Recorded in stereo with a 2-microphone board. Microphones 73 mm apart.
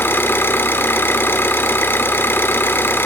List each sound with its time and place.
0.0 s an engine running: 30° left (ahead or behind), 2.5 m